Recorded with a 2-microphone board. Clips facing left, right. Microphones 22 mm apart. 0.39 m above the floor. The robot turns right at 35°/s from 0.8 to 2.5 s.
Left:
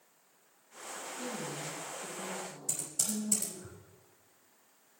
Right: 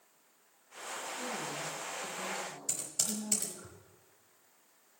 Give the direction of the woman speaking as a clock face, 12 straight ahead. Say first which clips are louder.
Even; 4 o'clock.